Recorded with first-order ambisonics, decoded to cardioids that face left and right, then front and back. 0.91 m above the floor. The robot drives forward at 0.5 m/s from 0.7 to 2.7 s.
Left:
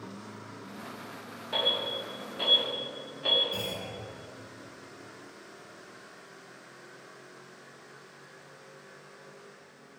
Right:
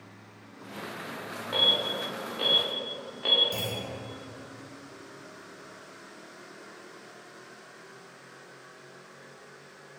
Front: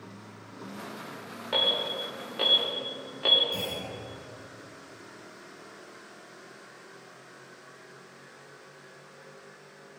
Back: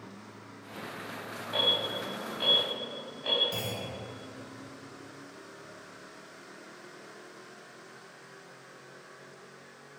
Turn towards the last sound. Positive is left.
turn(degrees=-115)